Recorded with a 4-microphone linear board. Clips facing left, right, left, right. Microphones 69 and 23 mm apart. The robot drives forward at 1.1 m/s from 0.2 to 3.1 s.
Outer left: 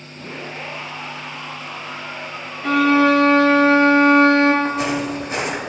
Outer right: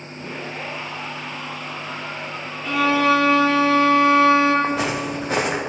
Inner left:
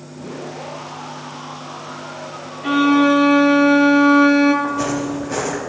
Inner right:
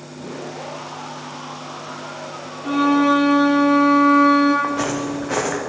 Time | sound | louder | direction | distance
2.6 | a violin | outer left 4 dB, inner left 2 dB | 55° left (ahead or behind) | 4 m
4.6 | footsteps | outer left 1 dB, inner left 1 dB | 70° right (ahead or behind) | 3.5 m